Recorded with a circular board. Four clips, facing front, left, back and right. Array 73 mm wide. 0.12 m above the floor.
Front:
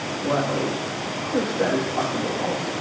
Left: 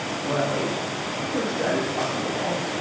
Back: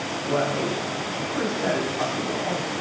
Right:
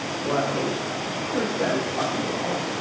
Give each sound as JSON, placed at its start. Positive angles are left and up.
{"t": 0.2, "sound": "a man speaking", "azimuth_deg": -15, "distance_m": 4.5}